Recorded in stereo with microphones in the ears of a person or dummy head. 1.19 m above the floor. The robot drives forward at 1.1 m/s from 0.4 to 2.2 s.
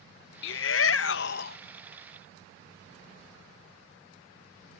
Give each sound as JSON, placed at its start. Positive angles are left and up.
{"t": 0.4, "sound": "a shout", "side_deg": 65}